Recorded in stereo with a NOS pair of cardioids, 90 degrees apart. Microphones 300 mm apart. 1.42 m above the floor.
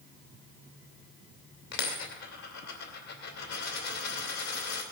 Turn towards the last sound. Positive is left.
turn(degrees=70)